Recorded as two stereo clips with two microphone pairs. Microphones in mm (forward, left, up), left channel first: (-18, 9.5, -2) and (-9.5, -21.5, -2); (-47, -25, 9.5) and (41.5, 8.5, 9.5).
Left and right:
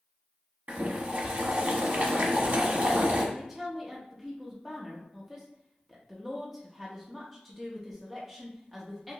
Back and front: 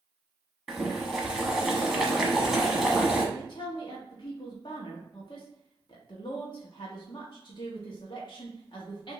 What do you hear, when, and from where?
0.7 s boiling: 65° right, 1.0 m
3.4 s a woman speaking: 155° right, 1.0 m